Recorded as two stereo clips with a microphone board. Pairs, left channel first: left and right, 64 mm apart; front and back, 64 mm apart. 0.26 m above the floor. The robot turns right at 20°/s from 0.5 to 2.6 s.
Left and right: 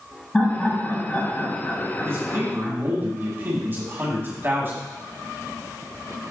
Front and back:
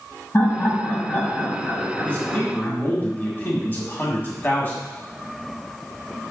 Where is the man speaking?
60° right, 1.9 m; by 4.8 s 50° right, 1.9 m.